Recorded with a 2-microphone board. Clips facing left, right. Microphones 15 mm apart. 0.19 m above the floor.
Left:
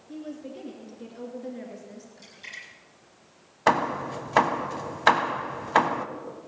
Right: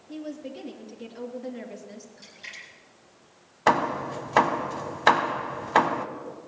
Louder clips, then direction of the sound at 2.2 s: Left 1 dB; centre (ahead or behind).